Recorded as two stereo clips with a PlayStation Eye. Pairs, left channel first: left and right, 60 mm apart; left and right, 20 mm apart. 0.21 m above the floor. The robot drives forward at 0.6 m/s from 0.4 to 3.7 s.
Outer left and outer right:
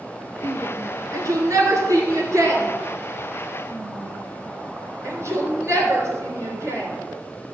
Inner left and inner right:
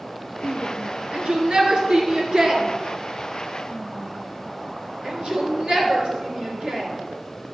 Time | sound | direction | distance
0.4 | a shout | 65° right (ahead or behind) | 3.5 m